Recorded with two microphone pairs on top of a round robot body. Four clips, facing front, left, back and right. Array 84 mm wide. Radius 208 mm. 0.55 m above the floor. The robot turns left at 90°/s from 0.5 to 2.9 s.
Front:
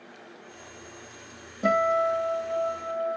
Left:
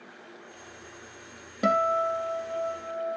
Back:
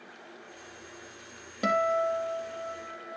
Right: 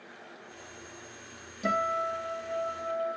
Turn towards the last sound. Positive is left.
turn(degrees=0)